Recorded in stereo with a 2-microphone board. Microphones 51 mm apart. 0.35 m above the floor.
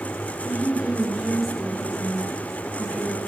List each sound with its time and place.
0.4 s a woman speaking: 30° right (ahead or behind), 2.0 m; by 3.2 s 20° left (ahead or behind), 4 m